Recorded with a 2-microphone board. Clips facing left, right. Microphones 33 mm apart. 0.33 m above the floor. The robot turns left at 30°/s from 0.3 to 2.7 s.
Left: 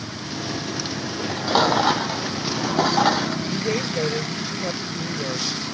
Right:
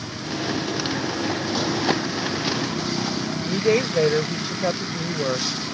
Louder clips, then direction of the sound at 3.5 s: Right 4 dB; 35° right (ahead or behind).